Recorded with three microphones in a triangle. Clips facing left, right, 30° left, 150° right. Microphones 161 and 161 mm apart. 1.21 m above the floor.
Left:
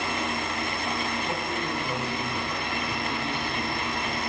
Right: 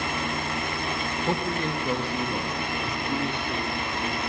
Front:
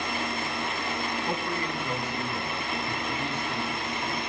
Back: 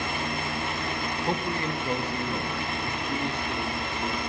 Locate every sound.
1.2 s a man speaking: 85° right, 1.6 m; by 4.3 s 100° right, 4.5 m